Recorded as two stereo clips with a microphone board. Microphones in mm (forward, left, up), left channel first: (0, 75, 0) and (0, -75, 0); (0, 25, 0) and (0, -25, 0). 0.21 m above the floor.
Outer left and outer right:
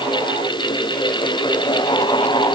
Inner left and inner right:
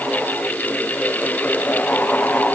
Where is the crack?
I don't hear a crack.